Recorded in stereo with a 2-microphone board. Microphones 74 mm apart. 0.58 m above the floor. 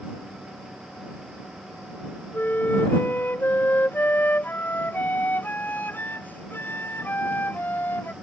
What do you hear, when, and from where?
2.3 s a flute: 25° left (ahead or behind)